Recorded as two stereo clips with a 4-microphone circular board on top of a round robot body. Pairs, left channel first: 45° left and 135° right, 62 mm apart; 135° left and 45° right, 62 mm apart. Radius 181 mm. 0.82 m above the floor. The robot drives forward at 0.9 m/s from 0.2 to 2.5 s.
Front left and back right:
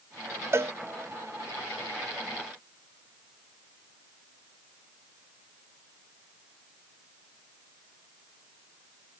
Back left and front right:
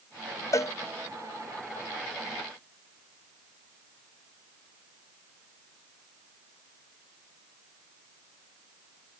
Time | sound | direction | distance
0.5 | a cowbell | 175° left | ?